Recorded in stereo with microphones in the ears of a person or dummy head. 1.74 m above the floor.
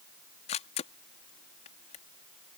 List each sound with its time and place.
0.5 s a camera shutter: 30° left (ahead or behind)